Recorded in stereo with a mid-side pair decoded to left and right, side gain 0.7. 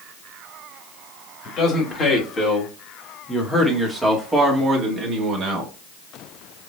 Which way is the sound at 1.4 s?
35° left.